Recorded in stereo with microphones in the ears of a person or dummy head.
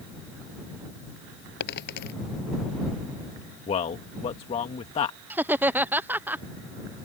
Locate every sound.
1.6 s a dropped coin: 70° left (ahead or behind)
3.7 s a man speaking: 35° left (ahead or behind)
5.3 s laughter: 10° right (ahead or behind)